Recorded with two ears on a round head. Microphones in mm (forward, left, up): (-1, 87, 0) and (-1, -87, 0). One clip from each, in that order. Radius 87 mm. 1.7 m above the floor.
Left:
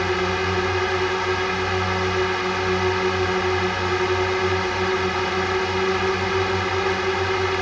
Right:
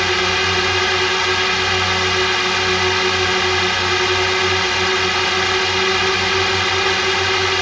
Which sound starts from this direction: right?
A drone, at 0.0 s.